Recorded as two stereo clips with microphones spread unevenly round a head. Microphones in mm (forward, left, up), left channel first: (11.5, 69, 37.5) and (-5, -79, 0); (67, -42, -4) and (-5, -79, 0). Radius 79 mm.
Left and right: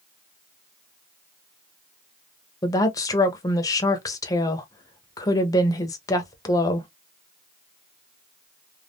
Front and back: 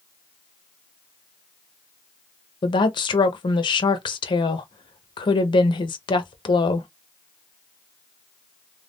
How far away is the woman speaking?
About 0.8 m.